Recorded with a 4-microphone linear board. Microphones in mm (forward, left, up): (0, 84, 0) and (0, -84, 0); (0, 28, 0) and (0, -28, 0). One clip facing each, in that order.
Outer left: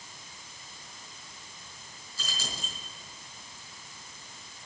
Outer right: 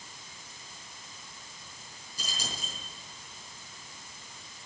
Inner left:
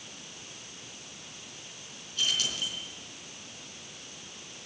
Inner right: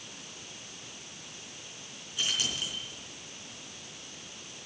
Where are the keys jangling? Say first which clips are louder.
Even, inner left 1 dB; 15° right (ahead or behind), 5 m.